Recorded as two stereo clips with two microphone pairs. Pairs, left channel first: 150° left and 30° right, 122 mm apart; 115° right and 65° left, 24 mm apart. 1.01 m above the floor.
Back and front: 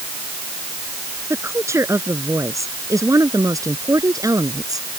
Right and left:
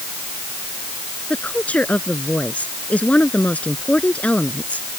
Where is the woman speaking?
100° right; by 4.9 s 90° right.